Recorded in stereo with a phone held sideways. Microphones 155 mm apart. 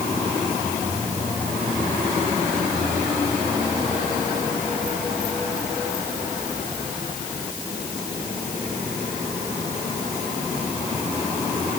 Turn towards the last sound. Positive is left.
No sound to turn to.